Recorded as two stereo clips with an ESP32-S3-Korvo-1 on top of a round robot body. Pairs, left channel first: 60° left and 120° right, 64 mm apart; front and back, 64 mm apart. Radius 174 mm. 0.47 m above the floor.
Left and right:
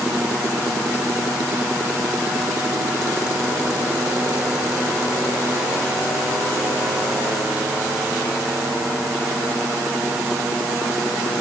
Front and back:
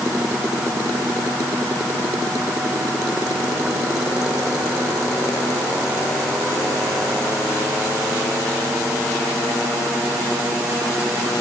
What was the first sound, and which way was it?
Only background noise.